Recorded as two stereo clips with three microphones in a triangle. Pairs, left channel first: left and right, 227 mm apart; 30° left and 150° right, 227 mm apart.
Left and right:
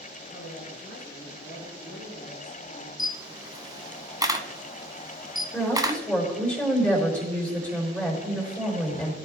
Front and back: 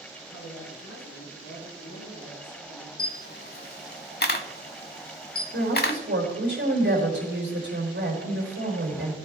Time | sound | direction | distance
0.2 | a woman speaking | 50° left | 3 m
3.0 | a camera shutter | 20° right | 0.8 m
5.5 | a woman speaking | 175° left | 4.5 m